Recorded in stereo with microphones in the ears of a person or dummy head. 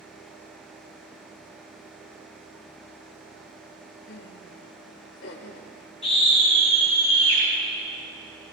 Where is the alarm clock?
No alarm clock in this recording.